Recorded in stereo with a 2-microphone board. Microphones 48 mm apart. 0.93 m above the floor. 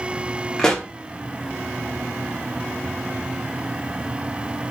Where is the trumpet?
No trumpet in this recording.